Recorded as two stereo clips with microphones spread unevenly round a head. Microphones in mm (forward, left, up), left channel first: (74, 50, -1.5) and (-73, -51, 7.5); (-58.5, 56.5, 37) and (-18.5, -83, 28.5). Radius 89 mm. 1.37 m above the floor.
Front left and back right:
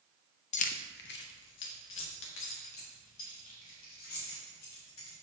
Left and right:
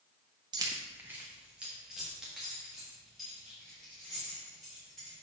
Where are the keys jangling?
10° right, 0.5 m; by 5.1 s 20° left, 3.5 m.